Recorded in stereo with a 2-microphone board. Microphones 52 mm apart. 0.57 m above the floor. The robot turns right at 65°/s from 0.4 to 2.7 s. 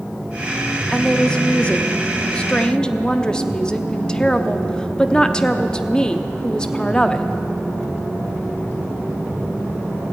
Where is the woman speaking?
5° left (ahead or behind), 0.7 m; by 7.2 s 15° left (ahead or behind), 0.7 m.